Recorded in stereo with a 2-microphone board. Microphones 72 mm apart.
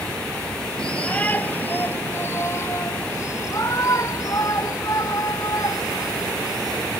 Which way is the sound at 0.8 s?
15° left (ahead or behind).